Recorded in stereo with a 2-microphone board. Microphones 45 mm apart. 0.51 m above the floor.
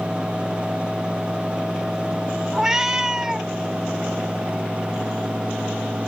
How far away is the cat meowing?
About 1.0 m.